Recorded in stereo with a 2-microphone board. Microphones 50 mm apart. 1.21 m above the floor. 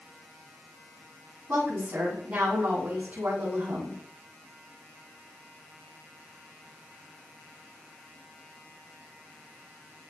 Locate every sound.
1.5 s a woman speaking: 45° right (ahead or behind), 8 m